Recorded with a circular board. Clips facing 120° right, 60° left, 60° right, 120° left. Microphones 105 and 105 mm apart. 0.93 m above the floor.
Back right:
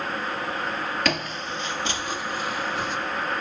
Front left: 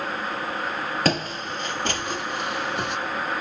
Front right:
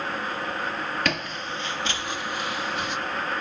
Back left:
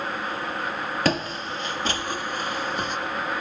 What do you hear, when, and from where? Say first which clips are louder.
1.1 s footsteps: front left 3 dB, back left 4 dB; 85° left, 1.1 m; by 3.0 s 75° left, 2.5 m